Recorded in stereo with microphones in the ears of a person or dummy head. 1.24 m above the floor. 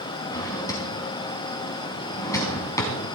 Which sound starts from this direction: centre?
A drawer, at 0.3 s.